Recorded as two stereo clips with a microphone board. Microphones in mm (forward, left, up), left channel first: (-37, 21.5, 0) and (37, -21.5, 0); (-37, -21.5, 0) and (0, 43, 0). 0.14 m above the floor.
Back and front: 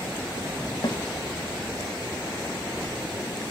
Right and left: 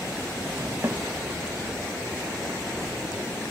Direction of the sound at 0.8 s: 115° left.